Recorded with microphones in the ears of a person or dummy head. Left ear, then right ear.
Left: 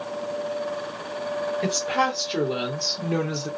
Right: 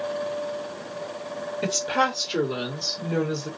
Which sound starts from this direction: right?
A woman speaking, at 1.6 s.